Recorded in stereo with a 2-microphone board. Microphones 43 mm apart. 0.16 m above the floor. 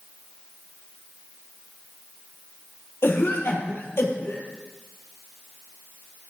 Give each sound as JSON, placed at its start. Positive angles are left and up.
{"t": 3.0, "sound": "a cough", "side_deg": 70, "distance_m": 5.0}